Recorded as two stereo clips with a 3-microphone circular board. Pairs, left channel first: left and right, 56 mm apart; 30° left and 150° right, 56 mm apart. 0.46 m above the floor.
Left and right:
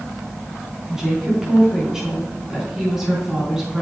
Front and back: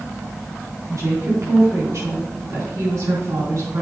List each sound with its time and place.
0.9 s a woman speaking: 170° right, 5 m